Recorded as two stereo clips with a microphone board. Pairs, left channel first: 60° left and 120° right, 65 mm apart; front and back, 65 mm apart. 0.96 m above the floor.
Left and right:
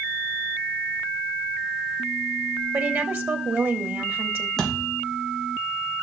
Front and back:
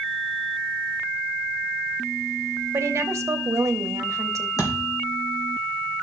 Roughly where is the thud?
Ahead right.